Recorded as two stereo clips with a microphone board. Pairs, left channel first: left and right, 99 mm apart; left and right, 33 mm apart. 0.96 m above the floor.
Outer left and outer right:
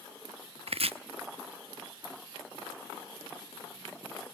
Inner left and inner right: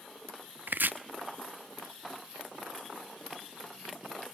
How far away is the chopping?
About 0.8 m.